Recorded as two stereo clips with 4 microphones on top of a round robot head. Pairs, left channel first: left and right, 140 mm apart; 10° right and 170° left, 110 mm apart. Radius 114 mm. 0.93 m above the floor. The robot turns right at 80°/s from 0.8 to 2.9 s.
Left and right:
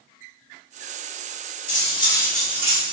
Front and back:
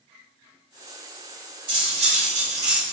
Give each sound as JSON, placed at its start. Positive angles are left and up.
{"t": 1.7, "sound": "cutlery clinking", "azimuth_deg": 120, "distance_m": 1.0}